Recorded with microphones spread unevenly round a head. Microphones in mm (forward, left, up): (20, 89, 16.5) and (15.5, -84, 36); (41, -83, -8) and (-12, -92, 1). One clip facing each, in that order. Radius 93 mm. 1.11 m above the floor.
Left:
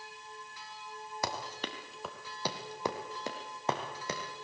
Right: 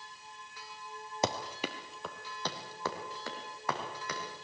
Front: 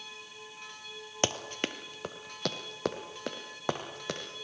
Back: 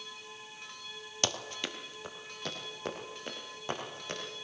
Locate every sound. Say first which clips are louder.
1.2 s running footsteps: right 5 dB, front 4 dB; 50° right, 1.3 m; by 4.2 s 20° left, 3.5 m